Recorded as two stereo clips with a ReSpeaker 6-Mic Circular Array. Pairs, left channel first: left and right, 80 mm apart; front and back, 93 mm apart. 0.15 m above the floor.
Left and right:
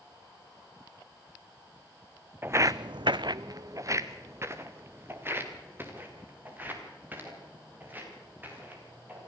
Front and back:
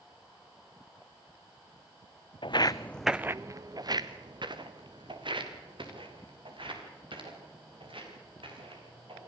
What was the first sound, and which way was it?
Footsteps, 25° right.